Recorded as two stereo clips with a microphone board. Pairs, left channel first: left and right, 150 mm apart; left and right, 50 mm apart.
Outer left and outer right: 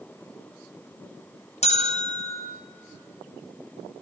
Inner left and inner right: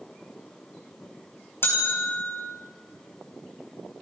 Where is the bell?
45° left (ahead or behind), 4.5 m.